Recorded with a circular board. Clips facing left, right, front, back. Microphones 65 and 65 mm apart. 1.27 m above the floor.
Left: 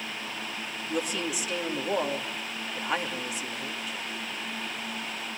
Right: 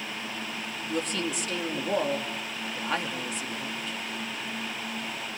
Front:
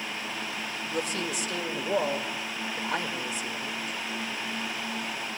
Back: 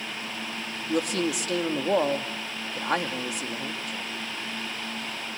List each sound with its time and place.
0.9 s a woman speaking: 170° left, 2.5 m